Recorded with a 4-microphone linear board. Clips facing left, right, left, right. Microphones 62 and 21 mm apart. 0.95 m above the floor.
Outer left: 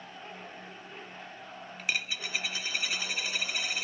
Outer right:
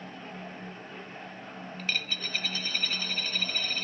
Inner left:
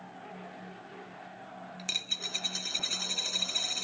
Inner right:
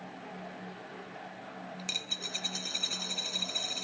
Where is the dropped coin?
10° left (ahead or behind).